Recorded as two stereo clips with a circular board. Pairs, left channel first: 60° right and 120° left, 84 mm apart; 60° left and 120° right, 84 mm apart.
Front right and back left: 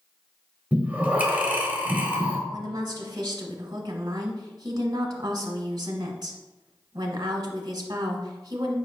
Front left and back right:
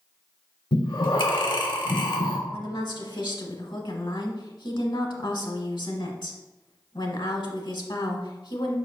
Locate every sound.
0.7 s breathing: 50° left, 0.8 m
2.5 s a woman speaking: 80° left, 0.9 m